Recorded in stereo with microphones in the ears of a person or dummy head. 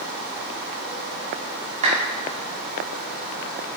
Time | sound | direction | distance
1.8 | a clap | 35° right (ahead or behind) | 1.8 m